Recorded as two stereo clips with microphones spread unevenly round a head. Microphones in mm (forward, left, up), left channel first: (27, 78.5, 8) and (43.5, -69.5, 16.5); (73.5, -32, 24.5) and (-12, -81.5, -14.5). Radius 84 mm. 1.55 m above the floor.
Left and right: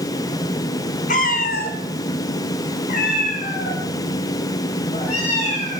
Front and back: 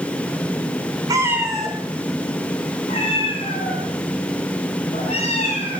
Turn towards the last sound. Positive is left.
turn(degrees=50)